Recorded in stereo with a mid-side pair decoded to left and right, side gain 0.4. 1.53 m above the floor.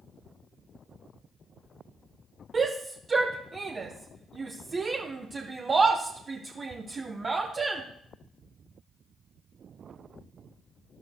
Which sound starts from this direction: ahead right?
A shout, at 2.5 s.